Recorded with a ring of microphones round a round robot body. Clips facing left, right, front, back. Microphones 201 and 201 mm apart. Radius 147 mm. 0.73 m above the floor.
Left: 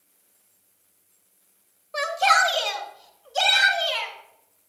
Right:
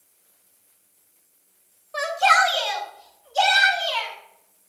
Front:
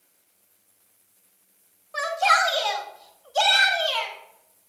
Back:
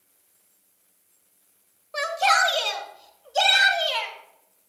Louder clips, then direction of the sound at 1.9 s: Right 2 dB, back 1 dB; 135° left.